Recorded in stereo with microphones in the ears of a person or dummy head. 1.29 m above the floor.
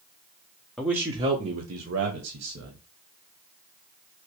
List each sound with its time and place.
0.8 s a man speaking: centre (ahead or behind), 0.7 m; by 2.8 s 60° right (ahead or behind), 1.5 m